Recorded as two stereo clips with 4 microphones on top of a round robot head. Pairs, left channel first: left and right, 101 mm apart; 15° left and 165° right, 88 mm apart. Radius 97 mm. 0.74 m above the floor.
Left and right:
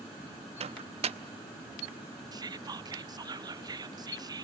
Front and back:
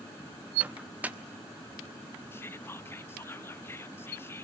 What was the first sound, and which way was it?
A microwave, 95° right.